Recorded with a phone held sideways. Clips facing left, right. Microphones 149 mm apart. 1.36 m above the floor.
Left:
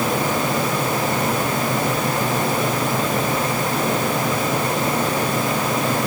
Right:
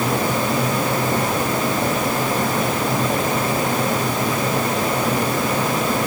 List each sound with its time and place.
Only background noise.